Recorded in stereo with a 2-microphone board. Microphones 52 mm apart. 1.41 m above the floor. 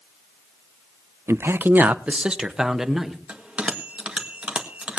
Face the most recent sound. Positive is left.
turn(degrees=-25)  # may be behind; listen again after turning